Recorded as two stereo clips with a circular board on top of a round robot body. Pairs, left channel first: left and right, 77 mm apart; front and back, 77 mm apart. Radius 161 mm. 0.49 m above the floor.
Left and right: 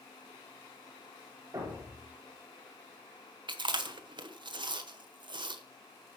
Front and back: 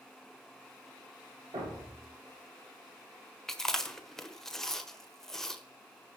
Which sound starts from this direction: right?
Chewing, at 3.5 s.